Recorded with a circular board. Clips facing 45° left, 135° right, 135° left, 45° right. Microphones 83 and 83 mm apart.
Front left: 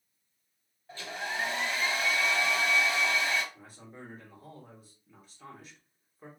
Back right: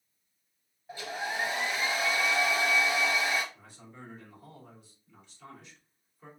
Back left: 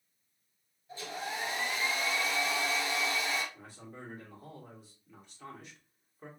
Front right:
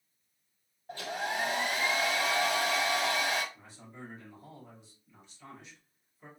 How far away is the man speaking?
About 2.5 m.